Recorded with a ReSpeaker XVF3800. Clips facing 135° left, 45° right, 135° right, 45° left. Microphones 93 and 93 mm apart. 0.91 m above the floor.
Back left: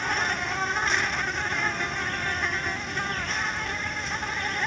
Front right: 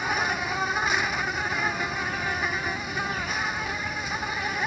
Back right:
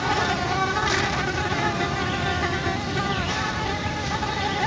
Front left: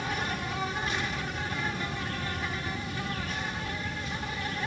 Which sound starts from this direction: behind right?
An insect, at 0.0 s.